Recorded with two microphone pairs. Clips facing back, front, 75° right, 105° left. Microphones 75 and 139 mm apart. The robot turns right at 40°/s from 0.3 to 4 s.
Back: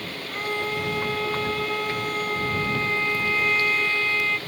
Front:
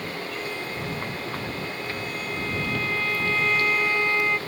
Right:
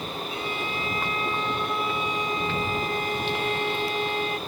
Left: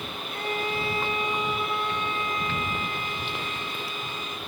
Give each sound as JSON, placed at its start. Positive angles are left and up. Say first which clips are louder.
{"t": 0.3, "sound": "a violin", "louder": "back 4 dB, left 5 dB", "azimuth_deg": 135}